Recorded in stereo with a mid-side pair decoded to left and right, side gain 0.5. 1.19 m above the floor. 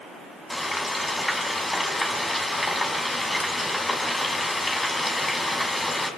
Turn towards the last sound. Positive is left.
turn(degrees=15)